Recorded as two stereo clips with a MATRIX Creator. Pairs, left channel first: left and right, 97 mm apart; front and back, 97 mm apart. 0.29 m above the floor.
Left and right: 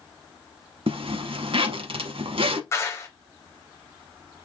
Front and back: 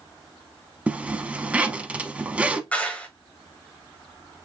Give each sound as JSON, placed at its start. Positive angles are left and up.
{"t": 0.9, "sound": "a zipper", "azimuth_deg": -105, "distance_m": 0.6}
{"t": 2.7, "sound": "a clap", "azimuth_deg": 65, "distance_m": 1.2}